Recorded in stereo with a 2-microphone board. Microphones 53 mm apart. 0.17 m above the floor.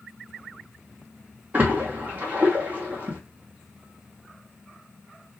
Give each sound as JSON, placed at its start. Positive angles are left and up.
{"t": 1.5, "sound": "a splash", "side_deg": -30, "distance_m": 1.4}